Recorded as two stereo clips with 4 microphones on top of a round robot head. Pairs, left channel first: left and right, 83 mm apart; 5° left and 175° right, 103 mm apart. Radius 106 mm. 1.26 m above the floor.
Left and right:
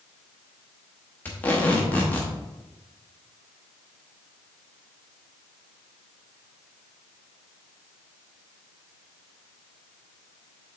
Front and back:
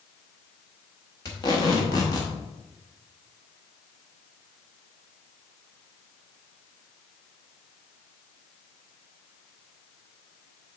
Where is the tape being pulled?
30° left, 0.7 m.